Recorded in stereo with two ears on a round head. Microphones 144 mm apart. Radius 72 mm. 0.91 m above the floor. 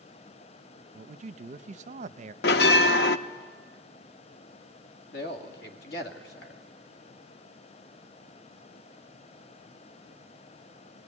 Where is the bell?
70° left (ahead or behind), 0.7 m.